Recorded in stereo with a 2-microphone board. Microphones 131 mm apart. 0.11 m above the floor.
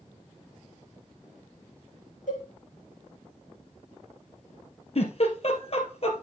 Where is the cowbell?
80° left, 7 m.